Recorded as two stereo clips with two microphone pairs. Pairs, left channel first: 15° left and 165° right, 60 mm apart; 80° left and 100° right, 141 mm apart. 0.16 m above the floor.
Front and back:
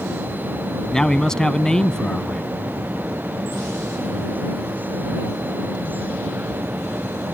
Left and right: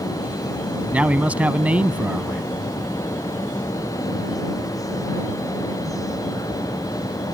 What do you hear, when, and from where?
0.9 s a man speaking: 40° right